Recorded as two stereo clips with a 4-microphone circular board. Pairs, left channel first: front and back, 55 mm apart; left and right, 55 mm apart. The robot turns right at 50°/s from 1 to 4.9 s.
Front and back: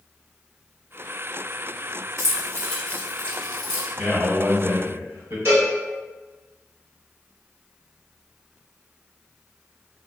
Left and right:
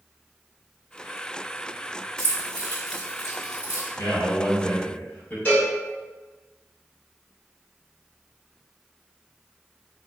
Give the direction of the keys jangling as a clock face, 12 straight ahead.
11 o'clock.